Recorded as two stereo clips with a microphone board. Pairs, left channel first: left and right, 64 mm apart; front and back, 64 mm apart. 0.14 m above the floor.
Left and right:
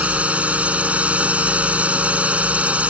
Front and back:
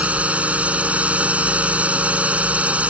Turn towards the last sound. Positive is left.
turn(degrees=-135)